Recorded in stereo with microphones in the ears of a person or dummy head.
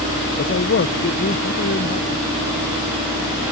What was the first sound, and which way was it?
A man speaking, 45° left (ahead or behind).